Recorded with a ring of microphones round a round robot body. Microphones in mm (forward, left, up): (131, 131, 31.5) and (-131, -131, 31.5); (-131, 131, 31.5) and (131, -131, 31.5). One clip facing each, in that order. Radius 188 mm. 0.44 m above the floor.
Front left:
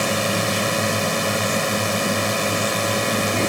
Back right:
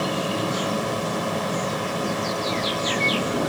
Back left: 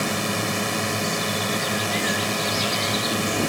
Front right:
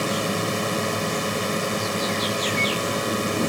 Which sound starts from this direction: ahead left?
A drone, at 0.0 s.